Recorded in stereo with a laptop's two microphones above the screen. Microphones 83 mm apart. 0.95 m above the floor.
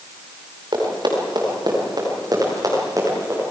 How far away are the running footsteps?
About 8 m.